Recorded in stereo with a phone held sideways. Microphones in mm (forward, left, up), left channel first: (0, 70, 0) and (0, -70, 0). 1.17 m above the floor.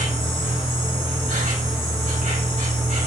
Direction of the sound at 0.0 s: 70° right (ahead or behind).